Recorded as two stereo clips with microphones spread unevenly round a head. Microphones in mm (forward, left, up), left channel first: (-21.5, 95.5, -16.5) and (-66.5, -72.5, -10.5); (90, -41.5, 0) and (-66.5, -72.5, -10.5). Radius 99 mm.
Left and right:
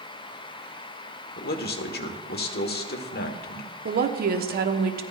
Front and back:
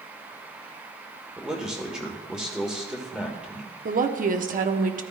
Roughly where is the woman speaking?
Behind right.